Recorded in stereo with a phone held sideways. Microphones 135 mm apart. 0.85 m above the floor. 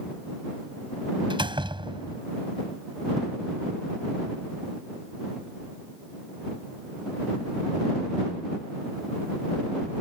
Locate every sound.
1.3 s a door slam: 35° right (ahead or behind)